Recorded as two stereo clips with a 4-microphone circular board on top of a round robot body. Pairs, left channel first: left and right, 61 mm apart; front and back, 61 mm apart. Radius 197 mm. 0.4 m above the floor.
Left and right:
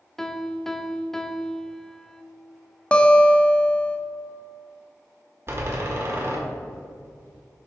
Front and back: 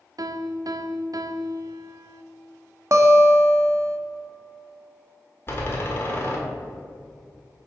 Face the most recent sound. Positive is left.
turn(degrees=-50)